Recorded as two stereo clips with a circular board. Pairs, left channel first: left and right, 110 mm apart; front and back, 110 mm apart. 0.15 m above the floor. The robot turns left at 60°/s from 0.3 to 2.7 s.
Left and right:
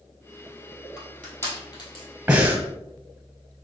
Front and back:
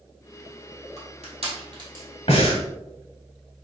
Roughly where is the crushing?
Behind.